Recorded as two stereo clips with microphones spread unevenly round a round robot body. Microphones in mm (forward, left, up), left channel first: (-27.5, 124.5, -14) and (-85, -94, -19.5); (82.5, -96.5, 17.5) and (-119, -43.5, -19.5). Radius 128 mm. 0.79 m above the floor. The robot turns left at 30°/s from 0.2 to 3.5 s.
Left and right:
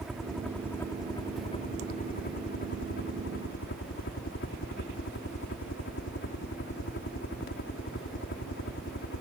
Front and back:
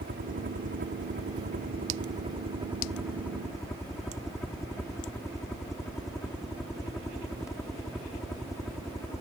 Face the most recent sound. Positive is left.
turn(degrees=70)